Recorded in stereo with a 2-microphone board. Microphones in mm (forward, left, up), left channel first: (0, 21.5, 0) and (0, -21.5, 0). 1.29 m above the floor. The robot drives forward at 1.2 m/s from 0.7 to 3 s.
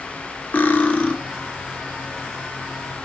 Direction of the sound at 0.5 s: 45° left (ahead or behind).